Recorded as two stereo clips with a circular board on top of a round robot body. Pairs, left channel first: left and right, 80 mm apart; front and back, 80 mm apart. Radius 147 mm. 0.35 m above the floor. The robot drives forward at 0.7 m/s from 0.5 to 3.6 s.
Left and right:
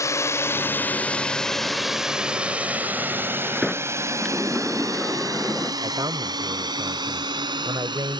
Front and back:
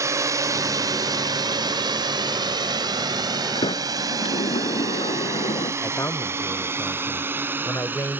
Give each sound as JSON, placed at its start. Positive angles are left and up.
{"t": 0.0, "sound": "a drone", "azimuth_deg": 135}
{"t": 3.5, "sound": "a sliding door", "azimuth_deg": 5}
{"t": 5.8, "sound": "a man speaking", "azimuth_deg": -55}